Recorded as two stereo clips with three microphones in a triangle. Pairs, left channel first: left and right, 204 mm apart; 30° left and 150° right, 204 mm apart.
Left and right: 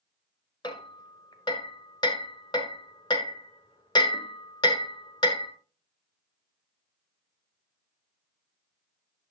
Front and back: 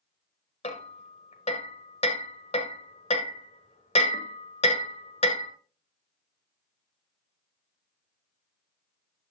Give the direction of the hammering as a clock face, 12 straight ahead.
11 o'clock.